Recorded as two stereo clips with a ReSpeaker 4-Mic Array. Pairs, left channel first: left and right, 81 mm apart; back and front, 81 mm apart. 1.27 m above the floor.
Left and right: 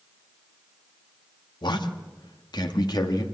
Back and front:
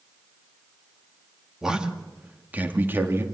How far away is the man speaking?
About 2 m.